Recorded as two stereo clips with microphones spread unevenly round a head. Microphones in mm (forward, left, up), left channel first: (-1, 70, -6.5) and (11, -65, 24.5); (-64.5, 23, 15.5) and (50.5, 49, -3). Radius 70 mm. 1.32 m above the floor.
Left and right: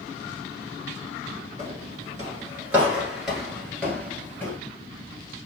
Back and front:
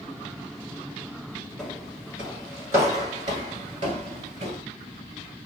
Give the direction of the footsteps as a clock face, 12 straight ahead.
3 o'clock.